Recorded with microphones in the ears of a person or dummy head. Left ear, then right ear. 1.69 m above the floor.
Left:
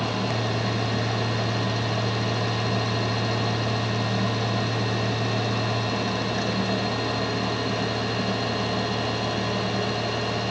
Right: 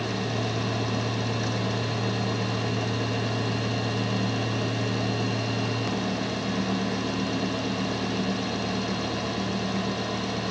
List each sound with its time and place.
Only background noise.